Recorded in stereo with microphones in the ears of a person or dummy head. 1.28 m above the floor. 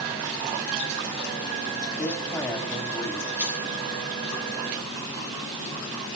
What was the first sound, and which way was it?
A man speaking, 10° left (ahead or behind).